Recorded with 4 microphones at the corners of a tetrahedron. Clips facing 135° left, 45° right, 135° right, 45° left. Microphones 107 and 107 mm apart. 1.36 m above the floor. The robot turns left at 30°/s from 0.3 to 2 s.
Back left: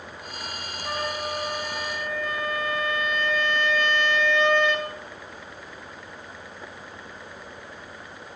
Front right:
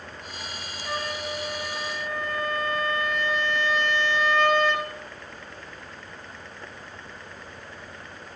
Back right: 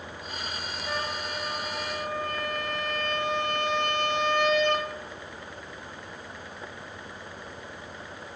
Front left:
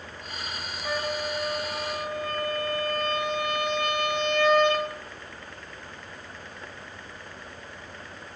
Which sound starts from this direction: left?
A trumpet, at 0.8 s.